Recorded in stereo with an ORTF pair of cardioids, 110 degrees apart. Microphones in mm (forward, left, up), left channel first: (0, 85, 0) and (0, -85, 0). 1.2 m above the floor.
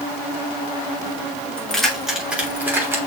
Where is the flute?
No flute in this recording.